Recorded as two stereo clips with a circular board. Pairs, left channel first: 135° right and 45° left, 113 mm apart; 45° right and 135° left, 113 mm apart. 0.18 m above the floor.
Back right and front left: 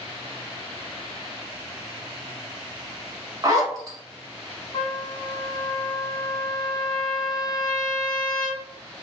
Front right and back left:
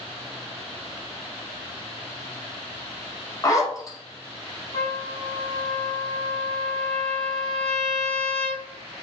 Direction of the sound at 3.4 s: Straight ahead.